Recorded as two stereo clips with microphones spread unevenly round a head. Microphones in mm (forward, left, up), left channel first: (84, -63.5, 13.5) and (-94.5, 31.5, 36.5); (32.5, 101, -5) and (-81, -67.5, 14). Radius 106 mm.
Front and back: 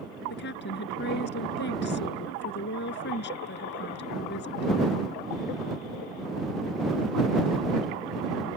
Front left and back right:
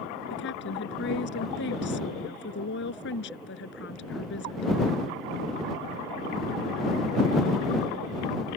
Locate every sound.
0.3 s a woman speaking: 15° left